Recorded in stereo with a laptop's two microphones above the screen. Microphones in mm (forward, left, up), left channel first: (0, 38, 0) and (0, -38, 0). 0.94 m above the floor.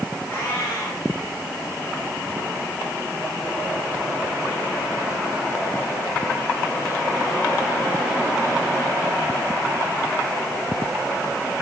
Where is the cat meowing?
35° left (ahead or behind), 6 m.